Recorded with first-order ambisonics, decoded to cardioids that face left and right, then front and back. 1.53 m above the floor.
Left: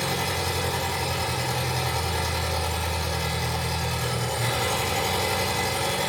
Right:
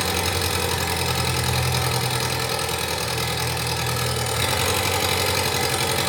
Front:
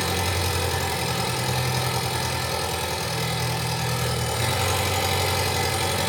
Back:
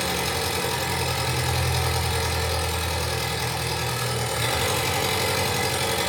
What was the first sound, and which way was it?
An engine running, 100° right.